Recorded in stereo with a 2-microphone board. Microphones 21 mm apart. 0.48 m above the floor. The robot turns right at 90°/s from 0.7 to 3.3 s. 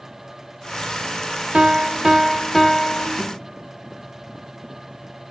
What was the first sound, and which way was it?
A piano, 90° right.